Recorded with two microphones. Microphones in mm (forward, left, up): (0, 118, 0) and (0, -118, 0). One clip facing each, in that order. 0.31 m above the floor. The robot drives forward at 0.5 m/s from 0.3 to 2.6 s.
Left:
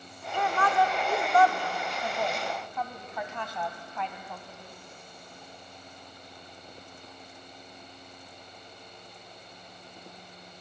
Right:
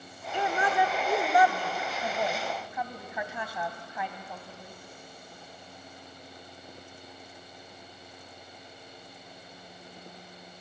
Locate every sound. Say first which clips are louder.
0.3 s a woman speaking: left 1 dB; 20° right (ahead or behind), 0.9 m; by 4.7 s 10° right (ahead or behind), 1.5 m